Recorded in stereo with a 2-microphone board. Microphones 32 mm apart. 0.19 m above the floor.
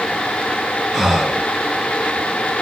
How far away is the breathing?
About 0.6 m.